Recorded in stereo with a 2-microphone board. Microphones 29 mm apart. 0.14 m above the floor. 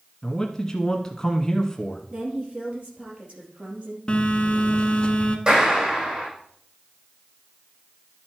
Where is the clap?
30° right (ahead or behind), 5.5 m.